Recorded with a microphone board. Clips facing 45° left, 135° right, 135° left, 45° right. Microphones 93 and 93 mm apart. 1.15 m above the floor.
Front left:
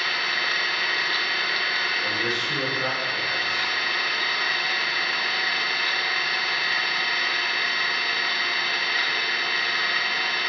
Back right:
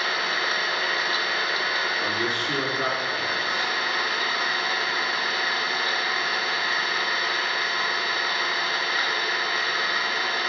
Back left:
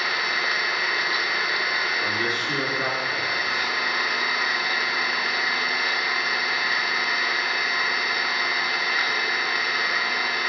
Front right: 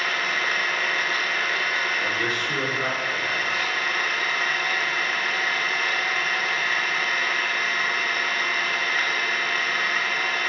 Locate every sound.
0.0 s an engine running: 155° right, 0.8 m
2.0 s a man speaking: 170° right, 3.5 m